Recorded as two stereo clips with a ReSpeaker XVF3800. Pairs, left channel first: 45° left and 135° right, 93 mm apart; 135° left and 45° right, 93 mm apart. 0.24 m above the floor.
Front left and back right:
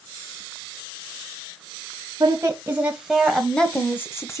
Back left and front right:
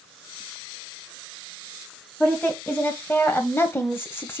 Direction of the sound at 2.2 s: 160° right.